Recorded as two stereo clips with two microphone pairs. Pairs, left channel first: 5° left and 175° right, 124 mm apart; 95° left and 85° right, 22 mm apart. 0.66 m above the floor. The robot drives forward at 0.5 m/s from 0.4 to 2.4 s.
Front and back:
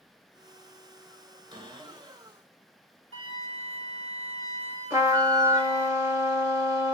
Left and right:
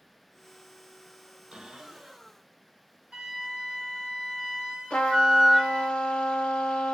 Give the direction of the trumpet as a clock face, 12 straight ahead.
8 o'clock.